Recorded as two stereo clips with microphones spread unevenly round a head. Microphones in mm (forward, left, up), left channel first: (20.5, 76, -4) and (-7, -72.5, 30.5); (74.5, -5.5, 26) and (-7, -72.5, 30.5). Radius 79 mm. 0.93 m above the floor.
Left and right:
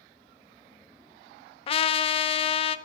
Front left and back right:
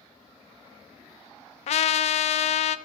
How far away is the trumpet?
About 0.5 m.